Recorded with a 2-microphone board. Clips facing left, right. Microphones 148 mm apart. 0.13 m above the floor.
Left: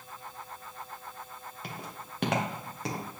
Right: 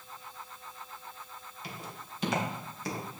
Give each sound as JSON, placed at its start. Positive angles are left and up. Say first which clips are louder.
{"t": 1.6, "sound": "footsteps", "louder": "left 1 dB", "side_deg": 60, "distance_m": 3.0}